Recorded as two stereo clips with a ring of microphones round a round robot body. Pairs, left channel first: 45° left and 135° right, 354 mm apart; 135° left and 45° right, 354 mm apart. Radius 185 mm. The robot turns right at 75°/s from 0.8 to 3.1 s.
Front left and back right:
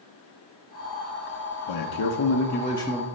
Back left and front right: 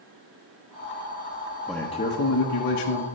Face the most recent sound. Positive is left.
turn(degrees=150)